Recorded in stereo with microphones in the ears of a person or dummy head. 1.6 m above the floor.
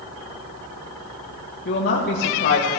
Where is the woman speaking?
50° left (ahead or behind), 1.6 m.